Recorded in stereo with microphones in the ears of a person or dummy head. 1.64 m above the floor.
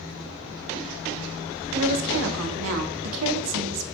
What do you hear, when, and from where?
1.7 s a woman speaking: 85° right, 0.8 m